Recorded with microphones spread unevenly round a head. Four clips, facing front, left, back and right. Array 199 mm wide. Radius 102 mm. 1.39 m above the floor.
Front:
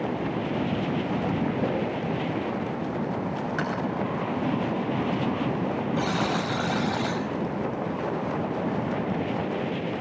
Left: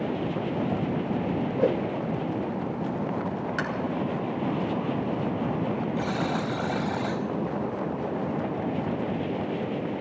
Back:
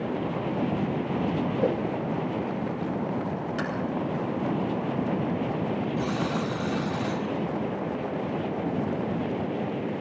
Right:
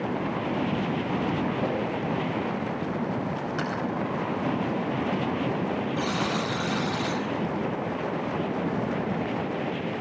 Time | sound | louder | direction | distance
1.6 | a whoosh | left 4 dB, back 1 dB | 105° left | 4.5 m
3.6 | tapping | left 1 dB, front 2 dB | 135° left | 6 m
6.0 | a buzzer | even, front 2 dB | 35° left | 6.5 m